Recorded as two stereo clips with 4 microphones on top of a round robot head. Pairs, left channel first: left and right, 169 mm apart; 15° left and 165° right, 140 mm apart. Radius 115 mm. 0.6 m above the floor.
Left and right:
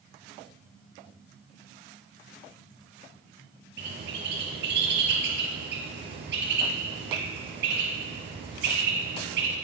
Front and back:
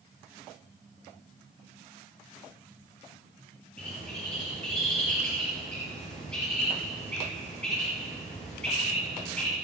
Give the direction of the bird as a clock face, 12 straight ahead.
2 o'clock.